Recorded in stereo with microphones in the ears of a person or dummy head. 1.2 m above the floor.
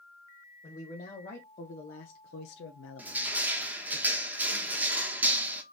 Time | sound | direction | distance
0.6 | a man speaking | 30° left (ahead or behind) | 1.6 m
3.0 | crushing | 10° right (ahead or behind) | 1.2 m